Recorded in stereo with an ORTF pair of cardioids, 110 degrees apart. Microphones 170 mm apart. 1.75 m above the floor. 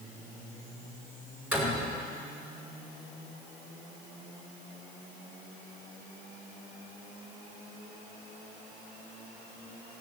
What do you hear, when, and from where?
1.5 s a door slam: 5° right, 4.5 m